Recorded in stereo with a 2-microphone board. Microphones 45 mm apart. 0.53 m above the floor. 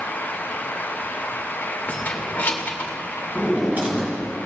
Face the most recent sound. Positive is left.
turn(degrees=-35)  # may be behind; listen again after turning